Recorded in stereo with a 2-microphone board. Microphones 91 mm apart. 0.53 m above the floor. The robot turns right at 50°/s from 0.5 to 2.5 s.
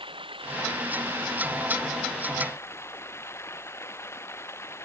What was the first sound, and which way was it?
Running water, 75° right.